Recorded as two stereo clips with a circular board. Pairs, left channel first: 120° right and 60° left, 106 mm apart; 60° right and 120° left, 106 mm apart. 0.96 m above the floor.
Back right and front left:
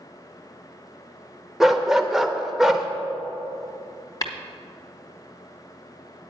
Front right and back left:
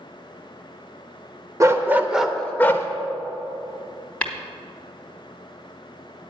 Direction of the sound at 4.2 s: 130° right.